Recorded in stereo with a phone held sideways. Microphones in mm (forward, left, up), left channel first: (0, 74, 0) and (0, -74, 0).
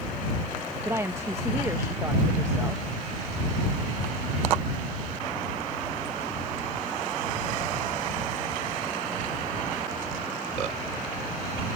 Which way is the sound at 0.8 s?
20° right (ahead or behind).